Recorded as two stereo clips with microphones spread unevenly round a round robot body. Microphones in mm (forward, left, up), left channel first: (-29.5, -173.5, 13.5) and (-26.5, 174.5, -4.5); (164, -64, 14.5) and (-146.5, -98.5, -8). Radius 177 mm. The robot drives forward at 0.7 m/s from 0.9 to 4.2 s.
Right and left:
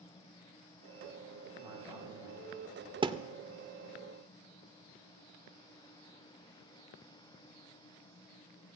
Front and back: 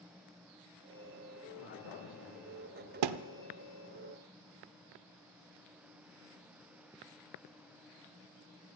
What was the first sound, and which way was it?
A man speaking, 10° left.